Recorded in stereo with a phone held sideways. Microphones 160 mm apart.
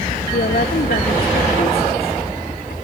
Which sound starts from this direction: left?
A woman speaking, at 0.3 s.